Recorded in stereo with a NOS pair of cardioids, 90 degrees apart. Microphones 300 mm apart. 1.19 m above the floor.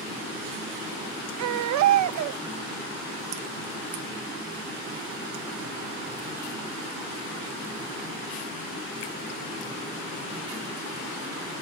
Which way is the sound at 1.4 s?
70° right.